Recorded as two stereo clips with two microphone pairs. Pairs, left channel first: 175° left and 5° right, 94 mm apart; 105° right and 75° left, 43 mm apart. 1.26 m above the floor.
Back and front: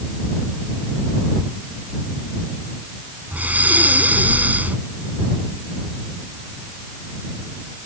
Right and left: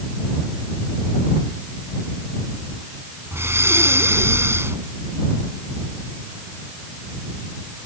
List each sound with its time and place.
3.3 s breathing: 65° left